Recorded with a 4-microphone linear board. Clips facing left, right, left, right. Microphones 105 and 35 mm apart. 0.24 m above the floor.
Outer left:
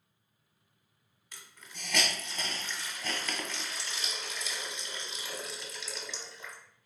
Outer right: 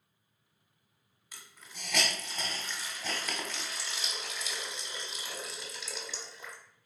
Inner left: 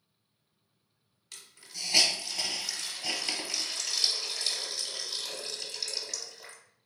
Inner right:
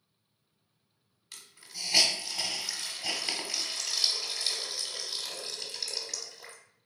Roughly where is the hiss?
Centre.